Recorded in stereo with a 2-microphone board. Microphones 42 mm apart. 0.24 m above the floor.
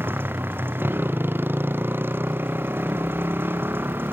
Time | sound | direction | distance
0.0 | a motorcycle | 60° right (ahead or behind) | ?